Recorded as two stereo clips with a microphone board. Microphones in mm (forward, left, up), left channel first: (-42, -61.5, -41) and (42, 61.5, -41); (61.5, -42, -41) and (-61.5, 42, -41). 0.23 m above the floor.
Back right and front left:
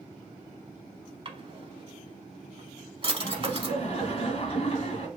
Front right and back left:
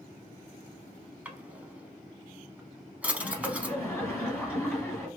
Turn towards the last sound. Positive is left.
turn(degrees=-110)